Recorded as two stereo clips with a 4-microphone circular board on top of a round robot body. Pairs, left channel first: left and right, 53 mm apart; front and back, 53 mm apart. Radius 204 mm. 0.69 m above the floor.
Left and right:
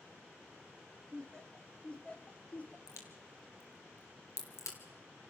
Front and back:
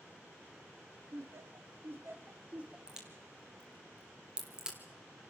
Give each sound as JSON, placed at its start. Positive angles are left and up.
{"t": 1.1, "sound": "laughter", "azimuth_deg": 165, "distance_m": 2.0}
{"t": 2.9, "sound": "a crack", "azimuth_deg": 105, "distance_m": 3.5}